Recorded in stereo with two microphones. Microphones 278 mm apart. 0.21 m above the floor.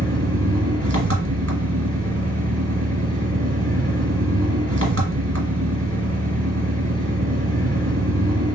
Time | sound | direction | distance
0.0 | an engine running | 55° right (ahead or behind) | 1.2 m